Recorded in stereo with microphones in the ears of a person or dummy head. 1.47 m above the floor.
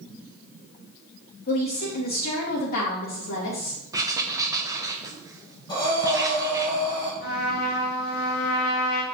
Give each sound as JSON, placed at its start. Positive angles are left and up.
{"t": 1.5, "sound": "a woman speaking", "side_deg": 50, "distance_m": 3.0}
{"t": 3.9, "sound": "writing", "side_deg": -25, "distance_m": 0.8}
{"t": 5.7, "sound": "breathing", "side_deg": 25, "distance_m": 3.5}
{"t": 7.2, "sound": "a trumpet", "side_deg": 60, "distance_m": 3.5}